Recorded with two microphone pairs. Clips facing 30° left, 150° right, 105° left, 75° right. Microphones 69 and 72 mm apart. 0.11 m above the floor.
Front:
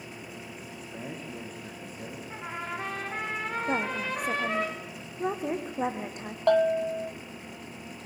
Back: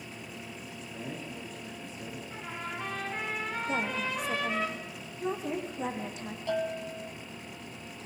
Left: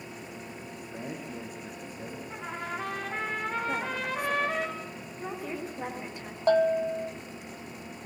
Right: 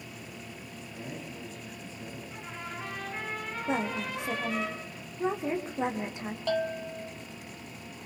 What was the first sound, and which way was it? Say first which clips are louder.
A man speaking: front 1 dB, left 2 dB; 75° left.